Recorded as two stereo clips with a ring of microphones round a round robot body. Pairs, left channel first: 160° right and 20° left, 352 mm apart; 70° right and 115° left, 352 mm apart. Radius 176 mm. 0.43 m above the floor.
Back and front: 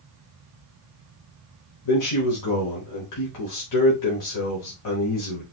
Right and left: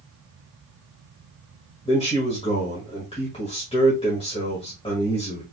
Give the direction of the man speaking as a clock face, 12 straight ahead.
5 o'clock.